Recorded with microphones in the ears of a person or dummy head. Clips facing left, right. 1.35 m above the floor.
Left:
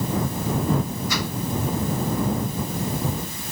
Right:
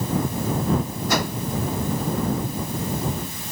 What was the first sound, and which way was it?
A whoosh, 45° right (ahead or behind).